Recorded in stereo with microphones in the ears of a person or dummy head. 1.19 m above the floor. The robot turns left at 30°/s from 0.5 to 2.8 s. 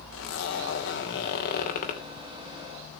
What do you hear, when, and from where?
0.1 s a zipper: 90° left, 2.5 m; by 2.0 s 45° left, 2.5 m